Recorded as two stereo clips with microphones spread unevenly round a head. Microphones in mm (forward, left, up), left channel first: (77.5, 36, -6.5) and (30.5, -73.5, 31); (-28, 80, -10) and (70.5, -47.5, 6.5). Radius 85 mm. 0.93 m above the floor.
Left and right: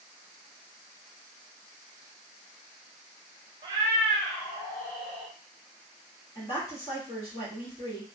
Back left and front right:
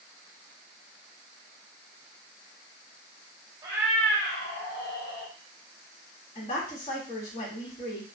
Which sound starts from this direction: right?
A cat meowing, at 3.6 s.